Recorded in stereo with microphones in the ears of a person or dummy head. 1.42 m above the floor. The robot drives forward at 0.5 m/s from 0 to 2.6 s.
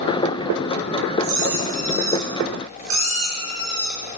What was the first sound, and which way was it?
A squeak, 75° right (ahead or behind).